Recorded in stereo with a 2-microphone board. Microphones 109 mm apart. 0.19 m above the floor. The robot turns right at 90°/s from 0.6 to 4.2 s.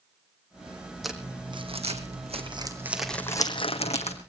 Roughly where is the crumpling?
Centre.